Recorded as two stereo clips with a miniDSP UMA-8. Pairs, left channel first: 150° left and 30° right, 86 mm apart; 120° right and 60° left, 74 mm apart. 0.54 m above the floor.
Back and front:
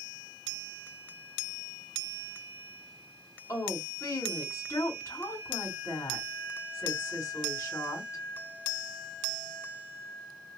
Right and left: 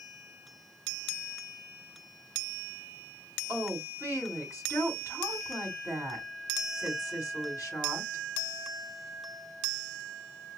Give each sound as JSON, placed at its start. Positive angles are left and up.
{"t": 3.5, "sound": "a woman speaking", "azimuth_deg": -160, "distance_m": 3.0}